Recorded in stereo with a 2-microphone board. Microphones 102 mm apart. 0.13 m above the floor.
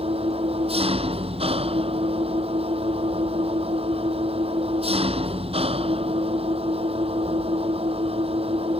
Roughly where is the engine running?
Right.